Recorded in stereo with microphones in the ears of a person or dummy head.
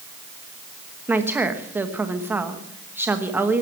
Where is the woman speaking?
15° right (ahead or behind), 1.1 m.